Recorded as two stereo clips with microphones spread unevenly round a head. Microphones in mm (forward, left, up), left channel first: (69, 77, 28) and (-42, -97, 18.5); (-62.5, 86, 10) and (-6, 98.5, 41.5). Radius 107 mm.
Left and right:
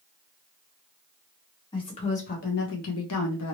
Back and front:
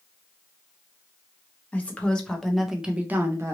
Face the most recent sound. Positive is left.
turn(degrees=50)